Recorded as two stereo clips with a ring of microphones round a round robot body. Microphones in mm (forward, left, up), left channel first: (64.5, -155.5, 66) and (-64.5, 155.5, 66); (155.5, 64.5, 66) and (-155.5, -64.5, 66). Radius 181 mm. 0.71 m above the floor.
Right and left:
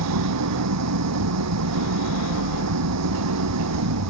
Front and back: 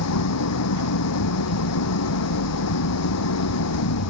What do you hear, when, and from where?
0.0 s an engine running: 70° left